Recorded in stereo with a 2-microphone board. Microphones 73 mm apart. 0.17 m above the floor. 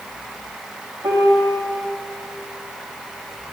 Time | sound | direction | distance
1.0 | a piano | 70° right (ahead or behind) | 3 m